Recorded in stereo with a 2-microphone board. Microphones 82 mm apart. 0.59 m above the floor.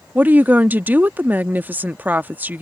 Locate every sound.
0.1 s a woman speaking: 20° right (ahead or behind)